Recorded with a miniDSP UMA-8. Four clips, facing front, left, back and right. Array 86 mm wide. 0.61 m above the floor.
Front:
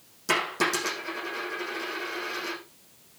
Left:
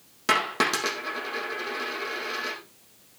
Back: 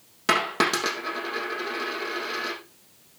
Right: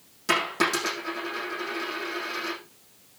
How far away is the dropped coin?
About 6.5 m.